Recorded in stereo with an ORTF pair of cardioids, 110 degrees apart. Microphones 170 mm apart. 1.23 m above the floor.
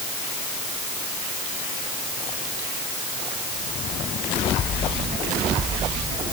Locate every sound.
Only background noise.